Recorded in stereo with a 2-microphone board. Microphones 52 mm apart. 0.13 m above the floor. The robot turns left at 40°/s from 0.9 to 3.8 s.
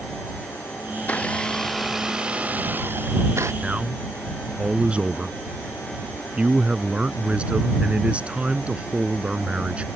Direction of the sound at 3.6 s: 20° right (ahead or behind).